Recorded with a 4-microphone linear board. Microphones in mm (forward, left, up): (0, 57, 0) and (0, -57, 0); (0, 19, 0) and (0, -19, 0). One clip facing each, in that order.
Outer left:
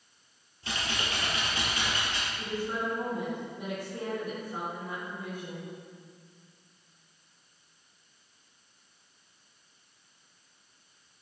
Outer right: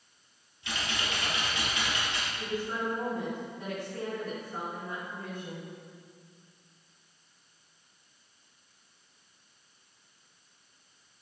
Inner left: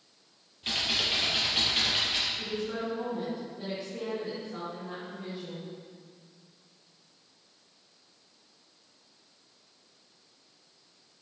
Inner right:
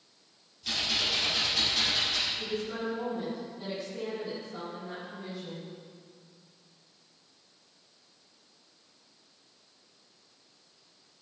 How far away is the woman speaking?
About 3.5 m.